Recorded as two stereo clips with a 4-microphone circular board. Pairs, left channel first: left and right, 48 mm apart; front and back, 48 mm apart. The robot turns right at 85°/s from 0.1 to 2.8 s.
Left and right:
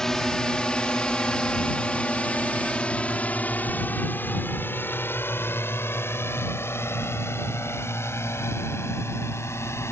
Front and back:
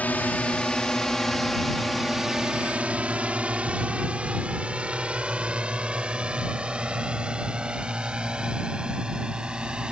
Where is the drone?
20° left; by 9.9 s 110° left.